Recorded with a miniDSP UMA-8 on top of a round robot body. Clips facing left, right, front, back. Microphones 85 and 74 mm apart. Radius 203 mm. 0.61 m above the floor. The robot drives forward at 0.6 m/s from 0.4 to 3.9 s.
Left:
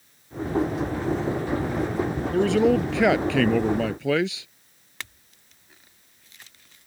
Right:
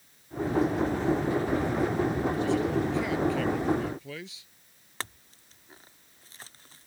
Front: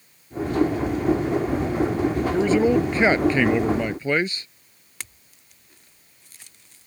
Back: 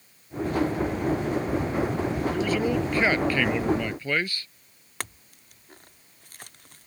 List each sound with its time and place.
2.3 s a man speaking: 65° left; by 4.5 s 70° left
5.0 s a clink: 145° right